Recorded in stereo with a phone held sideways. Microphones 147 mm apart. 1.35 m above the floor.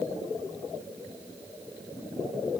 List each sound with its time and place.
Only background noise.